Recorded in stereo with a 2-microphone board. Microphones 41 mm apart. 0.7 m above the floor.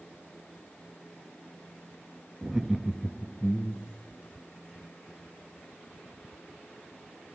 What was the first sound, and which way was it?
Laughter, 20° right (ahead or behind).